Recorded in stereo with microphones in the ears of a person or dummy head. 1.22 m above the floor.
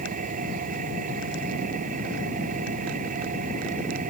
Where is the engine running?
40° right (ahead or behind).